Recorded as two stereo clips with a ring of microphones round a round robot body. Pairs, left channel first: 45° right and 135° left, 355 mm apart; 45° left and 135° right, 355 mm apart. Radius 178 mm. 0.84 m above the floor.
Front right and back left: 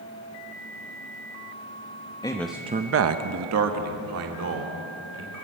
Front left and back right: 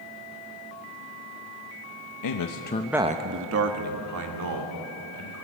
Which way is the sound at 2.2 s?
30° left.